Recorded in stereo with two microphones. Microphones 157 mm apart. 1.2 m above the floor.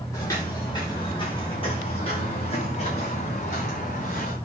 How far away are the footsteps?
About 6 m.